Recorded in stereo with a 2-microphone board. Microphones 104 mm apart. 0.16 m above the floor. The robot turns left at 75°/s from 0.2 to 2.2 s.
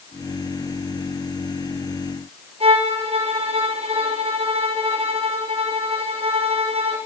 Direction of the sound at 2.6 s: 65° right (ahead or behind).